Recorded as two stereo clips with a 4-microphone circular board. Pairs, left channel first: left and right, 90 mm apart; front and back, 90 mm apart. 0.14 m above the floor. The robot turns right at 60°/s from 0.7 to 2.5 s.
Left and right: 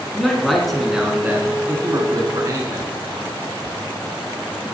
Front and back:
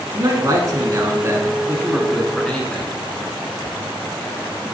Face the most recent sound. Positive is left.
turn(degrees=-75)